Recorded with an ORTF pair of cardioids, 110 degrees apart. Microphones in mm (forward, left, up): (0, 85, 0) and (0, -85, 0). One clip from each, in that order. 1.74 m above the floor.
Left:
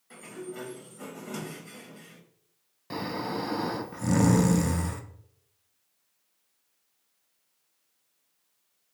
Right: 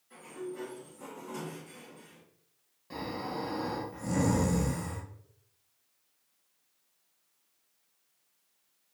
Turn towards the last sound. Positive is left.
turn(degrees=40)